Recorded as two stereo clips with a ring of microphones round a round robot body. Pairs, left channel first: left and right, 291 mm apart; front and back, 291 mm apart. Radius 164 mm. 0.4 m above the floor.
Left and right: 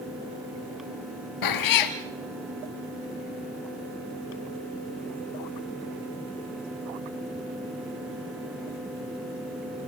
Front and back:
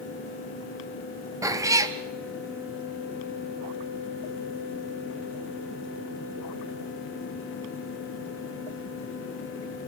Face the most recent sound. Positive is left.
turn(degrees=100)